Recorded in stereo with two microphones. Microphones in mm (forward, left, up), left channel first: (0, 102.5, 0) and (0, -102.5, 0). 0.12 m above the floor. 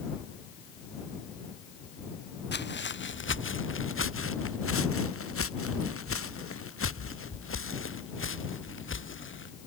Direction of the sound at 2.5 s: 55° left (ahead or behind).